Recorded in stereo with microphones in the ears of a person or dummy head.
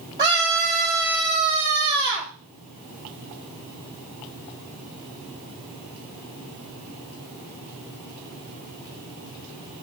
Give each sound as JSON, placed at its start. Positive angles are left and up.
{"t": 0.2, "sound": "a scream", "side_deg": -20, "distance_m": 3.0}